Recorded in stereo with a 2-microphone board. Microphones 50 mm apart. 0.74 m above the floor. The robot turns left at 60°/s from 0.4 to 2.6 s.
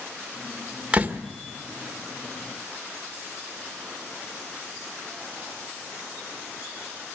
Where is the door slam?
20° right (ahead or behind), 1.4 m; by 1.2 s 40° right (ahead or behind), 1.4 m.